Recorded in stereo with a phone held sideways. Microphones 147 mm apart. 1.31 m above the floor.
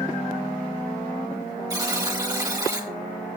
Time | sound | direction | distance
1.7 | a buzzer | 25° right (ahead or behind) | 2.5 m